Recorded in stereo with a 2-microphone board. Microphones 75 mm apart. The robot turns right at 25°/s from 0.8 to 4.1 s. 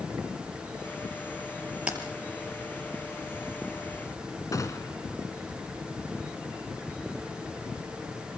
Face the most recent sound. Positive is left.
turn(degrees=50)  # may be behind; listen again after turning